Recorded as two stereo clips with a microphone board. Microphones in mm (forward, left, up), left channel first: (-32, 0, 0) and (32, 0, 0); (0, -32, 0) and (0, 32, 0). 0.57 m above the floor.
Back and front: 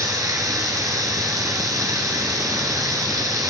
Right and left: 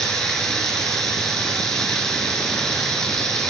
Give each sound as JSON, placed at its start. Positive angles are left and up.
{"t": 0.0, "sound": "running water", "azimuth_deg": -10, "distance_m": 1.1}